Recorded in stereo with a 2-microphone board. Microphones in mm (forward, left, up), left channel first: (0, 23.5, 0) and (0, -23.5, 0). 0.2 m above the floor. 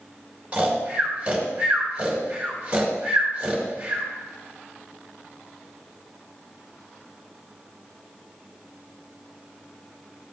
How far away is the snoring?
About 3 m.